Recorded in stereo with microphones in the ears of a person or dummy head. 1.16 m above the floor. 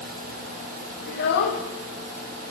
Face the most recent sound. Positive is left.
turn(degrees=60)  # may be behind; listen again after turning